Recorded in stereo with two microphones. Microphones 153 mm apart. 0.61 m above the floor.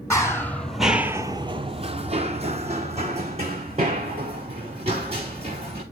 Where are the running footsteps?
20° left (ahead or behind), 1.0 m; by 5.8 s 40° right (ahead or behind), 3.5 m.